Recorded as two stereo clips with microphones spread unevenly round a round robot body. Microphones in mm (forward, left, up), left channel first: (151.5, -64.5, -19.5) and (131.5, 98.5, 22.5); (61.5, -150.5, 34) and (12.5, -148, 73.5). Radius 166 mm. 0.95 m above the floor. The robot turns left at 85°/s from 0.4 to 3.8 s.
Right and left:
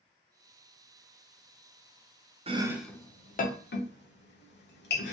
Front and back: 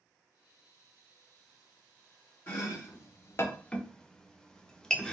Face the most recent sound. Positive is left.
turn(degrees=-75)